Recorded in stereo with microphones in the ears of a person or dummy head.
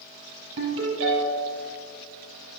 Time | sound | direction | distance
0.6 | a ringtone | 70° right (ahead or behind) | 4 m